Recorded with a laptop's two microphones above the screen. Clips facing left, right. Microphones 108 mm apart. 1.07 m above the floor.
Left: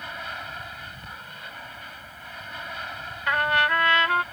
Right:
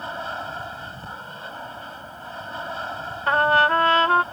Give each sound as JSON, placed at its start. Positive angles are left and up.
{"t": 0.0, "sound": "an aircraft", "side_deg": -30}
{"t": 3.3, "sound": "a trumpet", "side_deg": -35}